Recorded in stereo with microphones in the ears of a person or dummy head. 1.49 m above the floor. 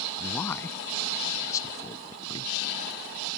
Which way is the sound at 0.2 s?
15° left (ahead or behind).